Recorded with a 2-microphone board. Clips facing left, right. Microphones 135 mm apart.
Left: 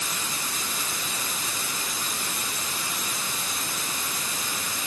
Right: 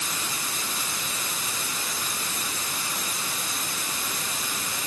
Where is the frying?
No frying in this recording.